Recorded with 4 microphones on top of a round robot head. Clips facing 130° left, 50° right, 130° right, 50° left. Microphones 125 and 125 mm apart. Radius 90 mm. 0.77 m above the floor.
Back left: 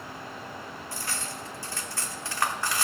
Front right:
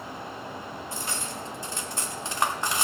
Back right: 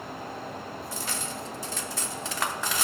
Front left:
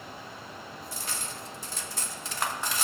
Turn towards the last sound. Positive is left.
turn(degrees=-120)